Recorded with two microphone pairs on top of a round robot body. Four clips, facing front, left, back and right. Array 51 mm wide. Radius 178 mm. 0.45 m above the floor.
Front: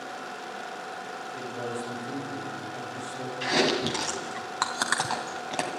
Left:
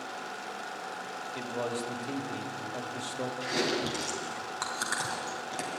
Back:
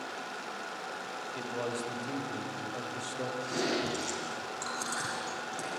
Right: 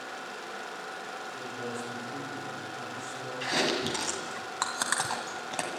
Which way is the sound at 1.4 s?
110° left.